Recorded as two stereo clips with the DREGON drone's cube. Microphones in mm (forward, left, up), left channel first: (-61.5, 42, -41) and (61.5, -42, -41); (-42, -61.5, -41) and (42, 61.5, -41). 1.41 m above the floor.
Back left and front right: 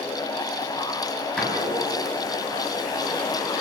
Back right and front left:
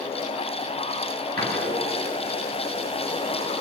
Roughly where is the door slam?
Ahead left.